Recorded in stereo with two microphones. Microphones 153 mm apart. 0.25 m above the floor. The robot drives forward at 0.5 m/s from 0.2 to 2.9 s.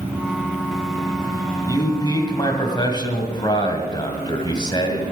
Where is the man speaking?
25° left (ahead or behind), 2 m; by 5.0 s 30° left (ahead or behind), 1.8 m.